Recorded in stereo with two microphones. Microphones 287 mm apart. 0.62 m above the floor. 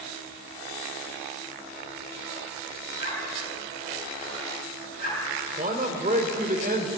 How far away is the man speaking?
About 2.5 m.